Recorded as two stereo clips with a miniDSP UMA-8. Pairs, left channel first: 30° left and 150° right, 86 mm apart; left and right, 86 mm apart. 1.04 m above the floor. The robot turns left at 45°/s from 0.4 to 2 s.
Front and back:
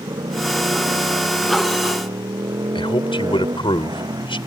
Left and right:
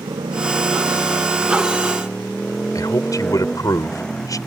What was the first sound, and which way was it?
A motorcycle, 115° right.